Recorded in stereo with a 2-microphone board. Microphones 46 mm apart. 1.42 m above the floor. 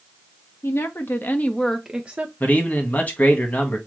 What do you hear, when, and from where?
0.6 s a woman speaking: 70° left (ahead or behind), 1.1 m; by 2.3 s 35° right (ahead or behind), 0.7 m
2.4 s a man speaking: 40° left (ahead or behind), 1.4 m